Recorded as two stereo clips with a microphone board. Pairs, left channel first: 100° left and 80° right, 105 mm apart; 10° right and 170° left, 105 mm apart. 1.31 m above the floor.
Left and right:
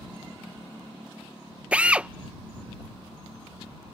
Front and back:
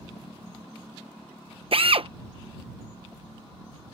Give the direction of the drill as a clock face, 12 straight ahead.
5 o'clock.